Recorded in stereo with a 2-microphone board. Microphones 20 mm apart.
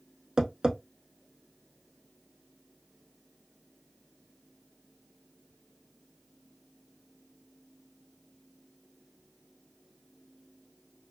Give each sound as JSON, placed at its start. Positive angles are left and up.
{"t": 0.4, "sound": "tapping", "side_deg": -40, "distance_m": 0.7}